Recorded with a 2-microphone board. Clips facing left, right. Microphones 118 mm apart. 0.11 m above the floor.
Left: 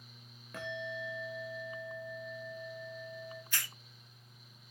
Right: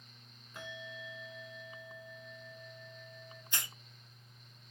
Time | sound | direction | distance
0.5 | a bell | 75° left (ahead or behind) | 6.5 m
3.5 | a hiss | 25° right (ahead or behind) | 0.6 m